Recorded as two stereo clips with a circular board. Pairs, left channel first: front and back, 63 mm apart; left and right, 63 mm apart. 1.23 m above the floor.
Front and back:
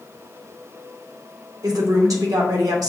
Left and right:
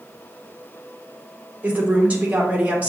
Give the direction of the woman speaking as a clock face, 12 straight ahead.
5 o'clock.